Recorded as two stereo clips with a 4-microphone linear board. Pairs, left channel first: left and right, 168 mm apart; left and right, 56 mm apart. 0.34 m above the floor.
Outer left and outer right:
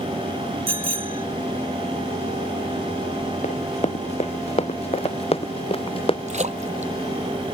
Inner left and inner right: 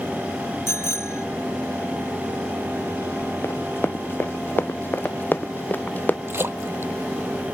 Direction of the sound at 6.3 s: 45° right (ahead or behind).